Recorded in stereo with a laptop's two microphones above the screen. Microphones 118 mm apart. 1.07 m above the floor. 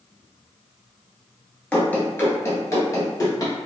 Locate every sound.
1.7 s running footsteps: 10° left (ahead or behind), 1.0 m; by 3.5 s 35° left (ahead or behind), 1.4 m